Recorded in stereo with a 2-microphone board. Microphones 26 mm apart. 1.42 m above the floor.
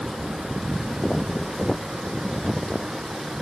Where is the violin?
I don't hear a violin.